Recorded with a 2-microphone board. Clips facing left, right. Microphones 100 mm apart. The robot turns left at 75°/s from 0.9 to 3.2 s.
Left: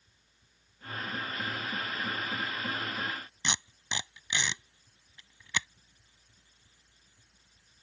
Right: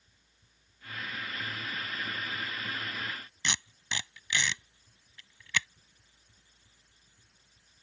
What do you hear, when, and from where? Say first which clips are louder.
3.4 s tape being pulled: even; 20° left (ahead or behind)